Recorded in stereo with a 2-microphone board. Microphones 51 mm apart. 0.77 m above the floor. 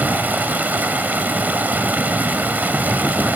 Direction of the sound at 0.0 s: 35° right (ahead or behind).